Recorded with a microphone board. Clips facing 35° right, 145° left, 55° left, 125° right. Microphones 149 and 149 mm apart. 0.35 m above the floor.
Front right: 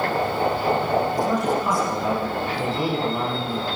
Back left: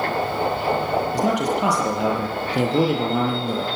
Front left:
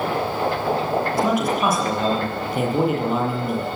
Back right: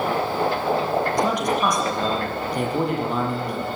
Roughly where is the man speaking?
Behind left.